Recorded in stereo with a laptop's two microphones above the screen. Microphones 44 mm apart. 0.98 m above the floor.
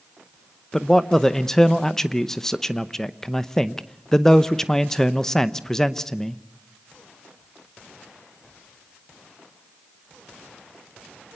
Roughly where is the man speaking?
Centre.